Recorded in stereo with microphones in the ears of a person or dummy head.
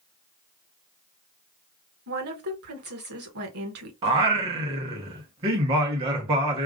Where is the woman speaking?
70° right (ahead or behind), 1.1 m.